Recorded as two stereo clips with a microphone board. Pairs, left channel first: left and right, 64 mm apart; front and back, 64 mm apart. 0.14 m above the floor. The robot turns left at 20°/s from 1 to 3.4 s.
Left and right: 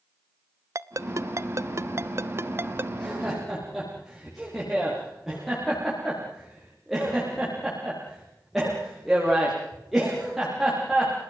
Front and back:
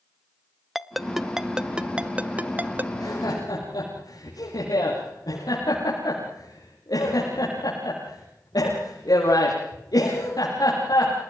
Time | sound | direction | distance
0.8 | a ringtone | 95° right | 0.6 m
2.9 | laughter | 5° left | 7.5 m